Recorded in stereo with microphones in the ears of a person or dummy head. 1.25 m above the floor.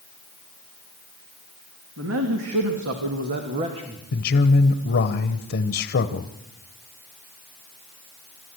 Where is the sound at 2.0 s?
80° right, 3 m; by 4.0 s 25° right (ahead or behind), 2.0 m.